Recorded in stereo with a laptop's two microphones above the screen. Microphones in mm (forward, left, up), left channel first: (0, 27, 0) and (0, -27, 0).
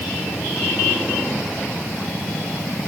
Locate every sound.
Only background noise.